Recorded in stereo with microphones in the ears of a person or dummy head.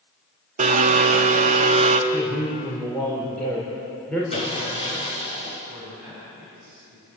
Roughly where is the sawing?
Left.